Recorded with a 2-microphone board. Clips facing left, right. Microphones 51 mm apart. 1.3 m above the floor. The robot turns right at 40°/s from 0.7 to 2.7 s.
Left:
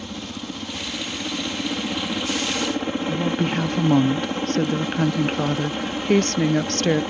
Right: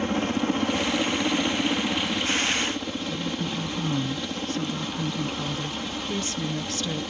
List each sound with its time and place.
0.0 s a helicopter: 50° right; by 7.1 s 30° left
3.1 s a woman speaking: 60° left (ahead or behind)